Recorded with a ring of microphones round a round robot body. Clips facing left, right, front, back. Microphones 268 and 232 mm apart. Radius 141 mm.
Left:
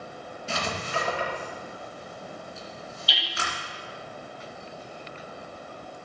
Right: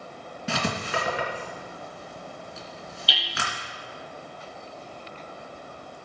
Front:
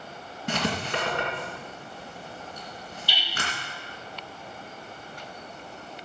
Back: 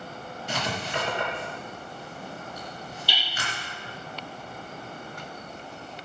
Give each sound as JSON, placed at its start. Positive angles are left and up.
{"t": 0.5, "sound": "writing", "azimuth_deg": -55, "distance_m": 3.0}
{"t": 3.1, "sound": "hammering", "azimuth_deg": -130, "distance_m": 3.5}